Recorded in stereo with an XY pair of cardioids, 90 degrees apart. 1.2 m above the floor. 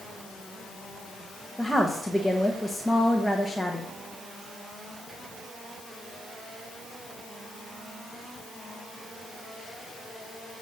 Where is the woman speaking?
5° left, 1.3 m.